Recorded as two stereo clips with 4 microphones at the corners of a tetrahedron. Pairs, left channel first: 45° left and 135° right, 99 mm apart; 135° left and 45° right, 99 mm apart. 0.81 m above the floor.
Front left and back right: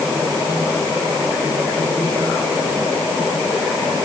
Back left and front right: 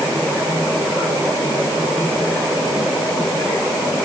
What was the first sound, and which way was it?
Only background noise.